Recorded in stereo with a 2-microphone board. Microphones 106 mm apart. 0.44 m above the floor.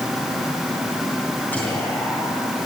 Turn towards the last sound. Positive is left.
turn(degrees=15)  # may be behind; listen again after turning